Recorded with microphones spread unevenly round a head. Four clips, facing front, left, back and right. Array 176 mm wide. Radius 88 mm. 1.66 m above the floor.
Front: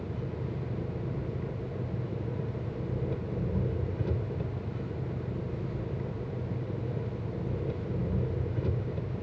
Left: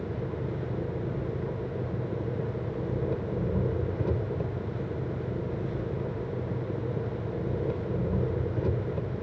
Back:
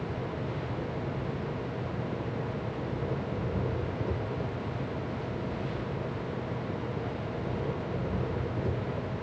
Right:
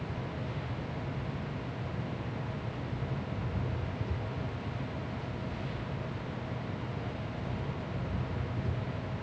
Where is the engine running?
100° left.